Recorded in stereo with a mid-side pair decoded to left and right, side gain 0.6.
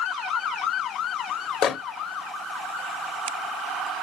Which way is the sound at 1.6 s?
55° left.